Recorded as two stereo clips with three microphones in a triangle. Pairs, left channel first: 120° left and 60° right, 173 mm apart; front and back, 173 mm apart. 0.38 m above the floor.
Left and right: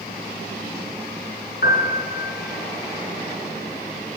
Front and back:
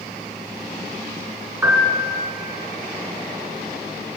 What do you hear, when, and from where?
1.6 s a piano: 105° left, 4.5 m